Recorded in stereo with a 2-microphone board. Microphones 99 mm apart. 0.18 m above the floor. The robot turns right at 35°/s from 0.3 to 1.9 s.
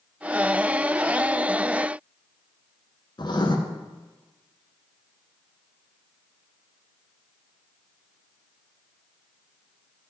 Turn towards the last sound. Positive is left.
turn(degrees=50)  # may be behind; listen again after turning